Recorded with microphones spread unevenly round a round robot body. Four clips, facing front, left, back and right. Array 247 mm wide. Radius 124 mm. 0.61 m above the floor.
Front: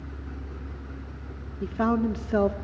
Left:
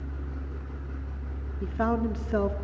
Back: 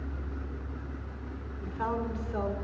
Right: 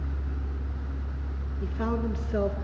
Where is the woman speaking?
30° left, 1.5 m.